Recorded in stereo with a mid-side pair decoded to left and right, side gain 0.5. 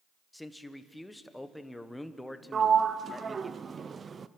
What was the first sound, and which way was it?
A man speaking, 5° left.